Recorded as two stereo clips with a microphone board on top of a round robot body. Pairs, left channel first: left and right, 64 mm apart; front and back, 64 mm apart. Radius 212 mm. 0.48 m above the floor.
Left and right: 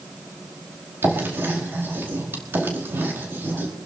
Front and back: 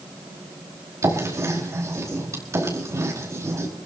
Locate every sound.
1.0 s writing: 140° right, 4.5 m